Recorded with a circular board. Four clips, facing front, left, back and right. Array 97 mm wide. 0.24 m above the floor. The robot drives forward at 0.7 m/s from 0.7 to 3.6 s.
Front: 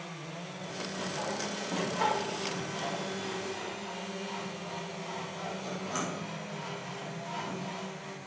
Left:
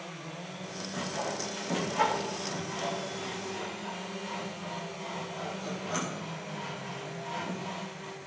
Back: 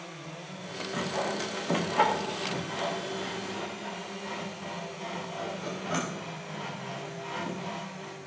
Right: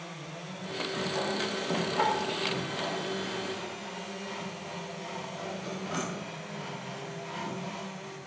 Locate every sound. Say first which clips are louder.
0.9 s sawing: right 2 dB, back 5 dB; 170° right, 3 m; by 8.2 s 175° right, 4.5 m